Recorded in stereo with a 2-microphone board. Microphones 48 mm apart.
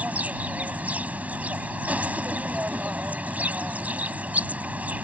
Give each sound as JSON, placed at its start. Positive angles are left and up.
{"t": 0.0, "sound": "an insect", "side_deg": -35}